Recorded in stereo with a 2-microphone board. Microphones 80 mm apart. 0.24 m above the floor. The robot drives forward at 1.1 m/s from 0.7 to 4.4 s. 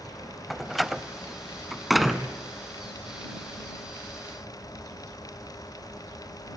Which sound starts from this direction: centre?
A door slam, at 0.5 s.